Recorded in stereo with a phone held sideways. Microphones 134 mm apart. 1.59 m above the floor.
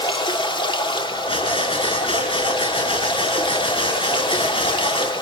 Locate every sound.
0.0 s running water: 35° left (ahead or behind), 1.5 m
1.3 s breathing: 45° left (ahead or behind), 5.5 m